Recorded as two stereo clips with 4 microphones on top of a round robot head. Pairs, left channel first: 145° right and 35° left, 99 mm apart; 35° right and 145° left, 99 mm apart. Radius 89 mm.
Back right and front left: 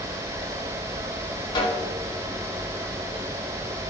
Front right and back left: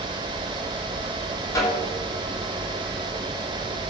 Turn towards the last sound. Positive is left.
turn(degrees=-95)